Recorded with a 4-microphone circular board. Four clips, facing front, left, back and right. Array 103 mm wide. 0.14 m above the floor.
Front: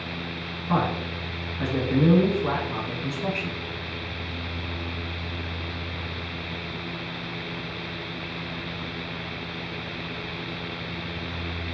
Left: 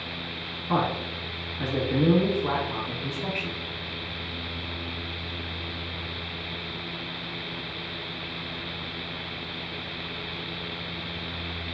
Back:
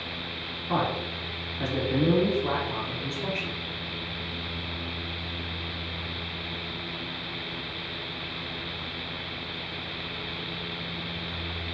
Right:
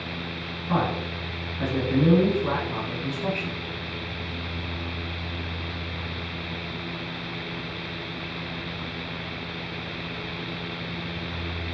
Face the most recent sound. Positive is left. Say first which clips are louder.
# even, front 2 dB
turn(degrees=5)